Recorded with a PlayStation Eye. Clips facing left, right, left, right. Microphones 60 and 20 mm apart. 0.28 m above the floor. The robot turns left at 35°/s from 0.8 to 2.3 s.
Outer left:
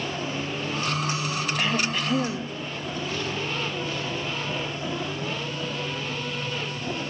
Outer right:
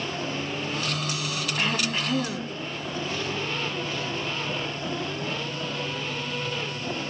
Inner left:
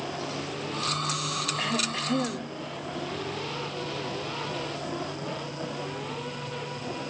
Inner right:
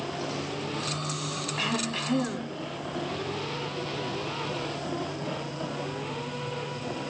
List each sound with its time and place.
1.6 s throat clearing: 55° right (ahead or behind), 3 m; by 2.6 s 30° right (ahead or behind), 3 m